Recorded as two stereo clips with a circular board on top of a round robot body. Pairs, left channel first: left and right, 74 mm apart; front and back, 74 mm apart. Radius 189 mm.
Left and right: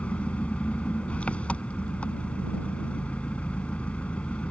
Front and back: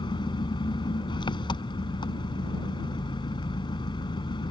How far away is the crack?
No crack in this recording.